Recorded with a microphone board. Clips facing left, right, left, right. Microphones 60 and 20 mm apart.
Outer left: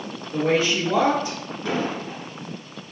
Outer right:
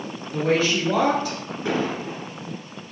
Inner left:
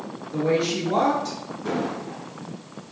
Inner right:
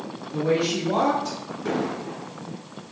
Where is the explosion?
15° right (ahead or behind), 1.6 m.